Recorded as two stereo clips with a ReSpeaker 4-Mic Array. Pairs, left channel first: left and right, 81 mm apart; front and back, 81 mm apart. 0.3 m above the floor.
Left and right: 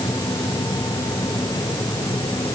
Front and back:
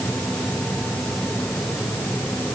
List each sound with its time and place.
Only background noise.